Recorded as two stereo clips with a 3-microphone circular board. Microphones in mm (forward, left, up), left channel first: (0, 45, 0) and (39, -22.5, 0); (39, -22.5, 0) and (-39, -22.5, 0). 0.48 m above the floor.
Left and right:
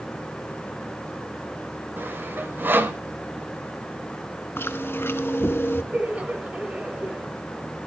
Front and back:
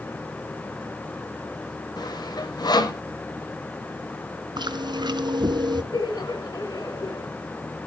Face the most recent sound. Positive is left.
turn(degrees=10)